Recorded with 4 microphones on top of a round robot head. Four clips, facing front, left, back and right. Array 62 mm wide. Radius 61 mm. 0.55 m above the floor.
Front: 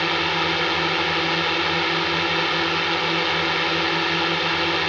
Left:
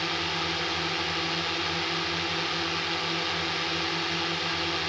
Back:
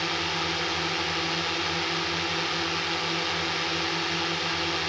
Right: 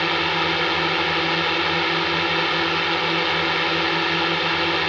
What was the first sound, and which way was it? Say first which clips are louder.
A drone: right 9 dB, front 7 dB; 55° right.